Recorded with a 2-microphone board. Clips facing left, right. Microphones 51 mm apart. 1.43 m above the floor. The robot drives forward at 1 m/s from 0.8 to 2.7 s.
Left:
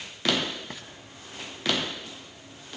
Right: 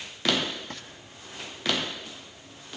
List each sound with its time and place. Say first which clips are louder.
0.7 s frying: even; 10° left (ahead or behind), 1.7 m